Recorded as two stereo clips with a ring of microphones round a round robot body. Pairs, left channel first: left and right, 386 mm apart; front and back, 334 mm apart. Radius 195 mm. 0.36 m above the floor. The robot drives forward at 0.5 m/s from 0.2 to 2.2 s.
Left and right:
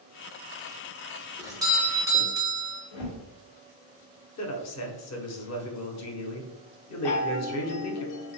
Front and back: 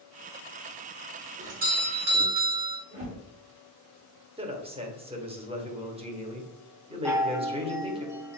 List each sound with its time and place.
1.4 s a doorbell: 155° right, 1.3 m; by 2.8 s 165° right, 1.5 m
2.9 s a whoosh: 115° left, 2.0 m
4.4 s a man speaking: 115° left, 1.1 m
7.0 s a chime: 100° left, 0.7 m